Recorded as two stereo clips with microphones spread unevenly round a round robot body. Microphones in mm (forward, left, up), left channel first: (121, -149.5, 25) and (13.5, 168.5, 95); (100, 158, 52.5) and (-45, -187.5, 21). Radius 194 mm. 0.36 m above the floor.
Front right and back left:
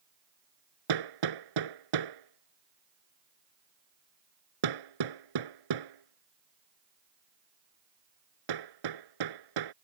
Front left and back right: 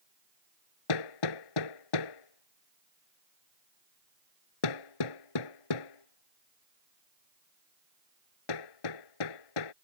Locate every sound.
0.9 s hammering: 100° left